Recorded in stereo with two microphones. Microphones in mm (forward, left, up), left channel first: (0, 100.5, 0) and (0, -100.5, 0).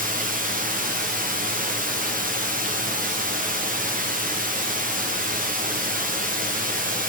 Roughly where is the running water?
Right.